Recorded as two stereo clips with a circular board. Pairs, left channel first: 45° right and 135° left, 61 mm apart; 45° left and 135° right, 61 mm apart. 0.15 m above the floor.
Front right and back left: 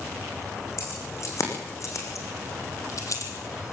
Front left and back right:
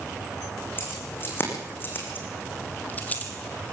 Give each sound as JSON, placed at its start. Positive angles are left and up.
{"t": 0.8, "sound": "keys jangling", "azimuth_deg": -10, "distance_m": 6.5}